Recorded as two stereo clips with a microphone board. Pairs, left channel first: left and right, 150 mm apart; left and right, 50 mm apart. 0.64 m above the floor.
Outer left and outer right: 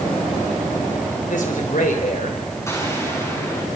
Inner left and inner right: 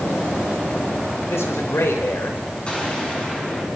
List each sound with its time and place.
1.3 s a man speaking: 60° left (ahead or behind), 3 m
2.7 s an explosion: 20° left (ahead or behind), 7.5 m